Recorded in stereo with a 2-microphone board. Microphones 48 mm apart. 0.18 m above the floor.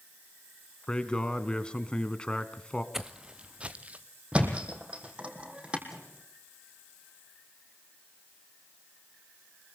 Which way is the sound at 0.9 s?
20° left (ahead or behind).